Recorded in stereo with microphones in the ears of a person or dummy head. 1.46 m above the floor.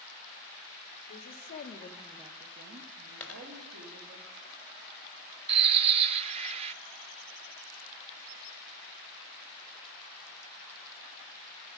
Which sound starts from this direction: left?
A woman speaking, at 1.1 s.